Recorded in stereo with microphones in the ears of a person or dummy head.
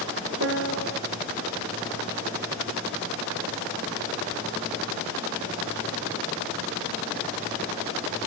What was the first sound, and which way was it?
A piano, 75° right (ahead or behind).